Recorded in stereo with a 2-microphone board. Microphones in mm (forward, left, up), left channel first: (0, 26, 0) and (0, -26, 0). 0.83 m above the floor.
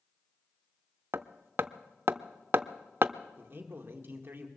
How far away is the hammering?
About 0.5 m.